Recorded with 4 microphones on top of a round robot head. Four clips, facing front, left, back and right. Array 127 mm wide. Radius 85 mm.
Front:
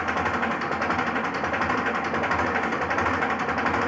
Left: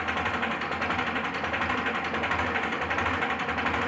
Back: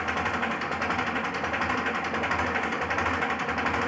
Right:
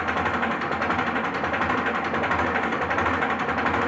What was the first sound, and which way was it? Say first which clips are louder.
An engine running: right 5 dB, front 3 dB; 55° right.